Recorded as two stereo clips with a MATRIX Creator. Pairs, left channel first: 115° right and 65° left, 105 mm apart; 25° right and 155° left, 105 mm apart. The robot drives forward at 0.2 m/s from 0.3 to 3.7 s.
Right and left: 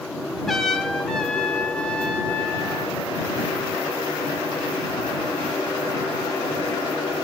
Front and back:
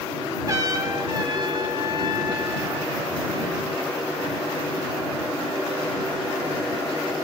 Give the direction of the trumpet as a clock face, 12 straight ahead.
7 o'clock.